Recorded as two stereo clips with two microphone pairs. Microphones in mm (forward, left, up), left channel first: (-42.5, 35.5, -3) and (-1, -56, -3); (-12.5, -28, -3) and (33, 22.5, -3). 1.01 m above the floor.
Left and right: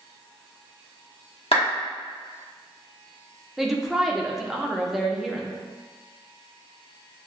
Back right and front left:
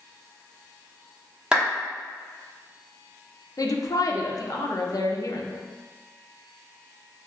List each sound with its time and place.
1.5 s a clap: 125° left, 1.3 m
3.6 s a woman speaking: 150° right, 0.6 m